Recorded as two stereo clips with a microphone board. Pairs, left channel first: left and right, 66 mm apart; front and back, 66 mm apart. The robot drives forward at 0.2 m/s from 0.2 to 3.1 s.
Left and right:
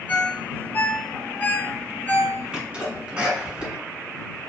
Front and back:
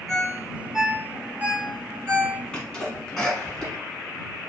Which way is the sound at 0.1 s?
90° left.